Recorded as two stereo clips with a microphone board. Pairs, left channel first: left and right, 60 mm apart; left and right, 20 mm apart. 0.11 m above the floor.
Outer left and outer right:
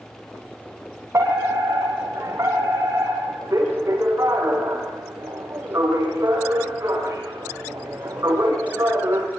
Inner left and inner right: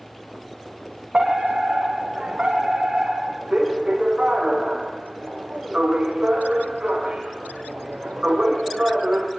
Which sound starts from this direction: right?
A fire alarm, at 1.1 s.